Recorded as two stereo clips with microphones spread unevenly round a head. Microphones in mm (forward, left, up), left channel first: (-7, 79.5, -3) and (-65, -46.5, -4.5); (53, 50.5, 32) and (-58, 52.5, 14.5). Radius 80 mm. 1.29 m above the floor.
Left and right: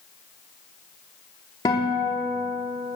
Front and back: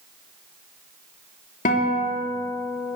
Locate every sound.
1.6 s a guitar: 5° right, 3.5 m